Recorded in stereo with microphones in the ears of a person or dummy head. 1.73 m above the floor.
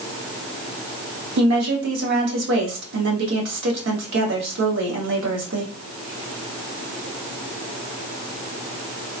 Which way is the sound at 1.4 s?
70° right (ahead or behind).